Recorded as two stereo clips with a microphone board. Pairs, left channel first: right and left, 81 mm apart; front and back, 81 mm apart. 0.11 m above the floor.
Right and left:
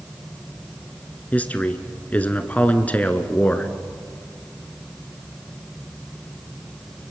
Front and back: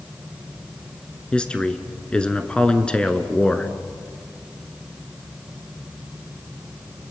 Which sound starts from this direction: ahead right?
A man speaking, at 1.3 s.